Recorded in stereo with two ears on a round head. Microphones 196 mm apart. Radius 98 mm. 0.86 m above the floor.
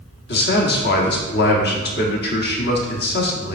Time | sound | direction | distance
0.3 | a man speaking | 50° left (ahead or behind) | 1.3 m